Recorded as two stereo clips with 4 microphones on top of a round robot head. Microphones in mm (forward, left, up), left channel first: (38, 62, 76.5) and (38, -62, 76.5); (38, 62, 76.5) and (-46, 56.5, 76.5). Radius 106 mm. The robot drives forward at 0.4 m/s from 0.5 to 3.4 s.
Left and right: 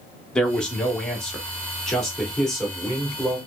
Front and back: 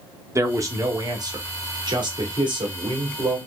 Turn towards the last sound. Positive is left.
turn(degrees=175)